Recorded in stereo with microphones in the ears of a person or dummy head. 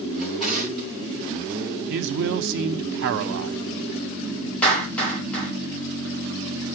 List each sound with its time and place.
0.2 s a drawer: centre (ahead or behind), 7 m
1.9 s a man speaking: 65° right (ahead or behind), 1.1 m
4.6 s a clap: 10° left (ahead or behind), 5 m